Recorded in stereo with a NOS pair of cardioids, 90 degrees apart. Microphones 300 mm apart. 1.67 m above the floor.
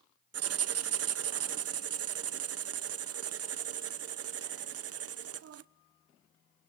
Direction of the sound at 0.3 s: 55° right.